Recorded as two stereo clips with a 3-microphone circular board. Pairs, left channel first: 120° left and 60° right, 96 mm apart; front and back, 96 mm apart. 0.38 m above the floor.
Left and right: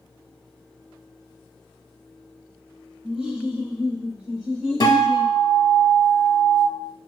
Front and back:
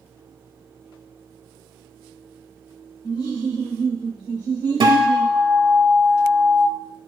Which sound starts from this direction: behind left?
A guitar, at 4.8 s.